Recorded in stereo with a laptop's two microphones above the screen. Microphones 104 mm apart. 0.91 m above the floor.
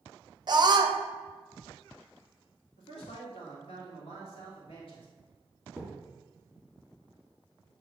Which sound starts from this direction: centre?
A thud, at 5.8 s.